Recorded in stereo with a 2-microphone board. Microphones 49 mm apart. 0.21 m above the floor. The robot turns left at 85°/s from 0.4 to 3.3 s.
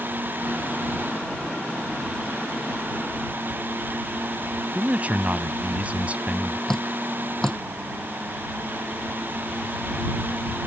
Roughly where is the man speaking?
Right.